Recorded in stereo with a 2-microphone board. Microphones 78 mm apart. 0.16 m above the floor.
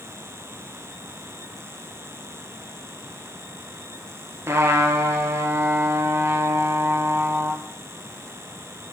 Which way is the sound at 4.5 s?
35° right (ahead or behind).